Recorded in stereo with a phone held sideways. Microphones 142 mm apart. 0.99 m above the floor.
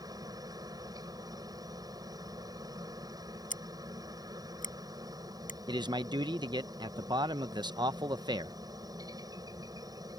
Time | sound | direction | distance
0.0 | a helicopter | 25° right (ahead or behind) | ?
3.5 | scissors | 60° left (ahead or behind) | ?
5.7 | a man speaking | 30° right (ahead or behind) | ?